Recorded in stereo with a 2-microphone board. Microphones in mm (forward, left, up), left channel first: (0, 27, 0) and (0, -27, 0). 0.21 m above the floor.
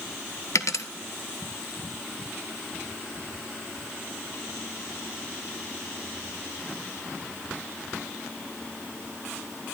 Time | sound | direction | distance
0.6 | a dropped coin | 80° left | 0.9 m